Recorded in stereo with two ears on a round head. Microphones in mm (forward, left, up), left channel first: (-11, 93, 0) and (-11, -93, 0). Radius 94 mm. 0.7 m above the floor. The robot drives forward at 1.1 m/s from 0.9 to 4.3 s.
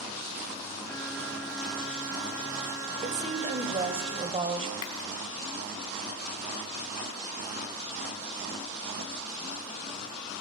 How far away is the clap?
About 4 m.